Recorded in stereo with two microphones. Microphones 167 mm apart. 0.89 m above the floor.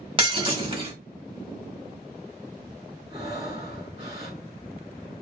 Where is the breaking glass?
35° right (ahead or behind), 1.3 m.